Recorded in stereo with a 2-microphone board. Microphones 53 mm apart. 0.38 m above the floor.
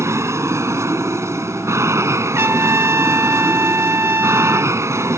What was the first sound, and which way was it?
An aircraft, 60° right (ahead or behind).